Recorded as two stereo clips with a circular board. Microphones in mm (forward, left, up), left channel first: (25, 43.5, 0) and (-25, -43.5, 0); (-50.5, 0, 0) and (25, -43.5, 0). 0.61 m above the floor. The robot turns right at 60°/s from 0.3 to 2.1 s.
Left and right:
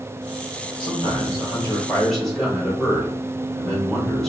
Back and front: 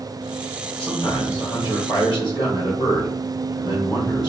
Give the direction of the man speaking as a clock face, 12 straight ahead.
10 o'clock.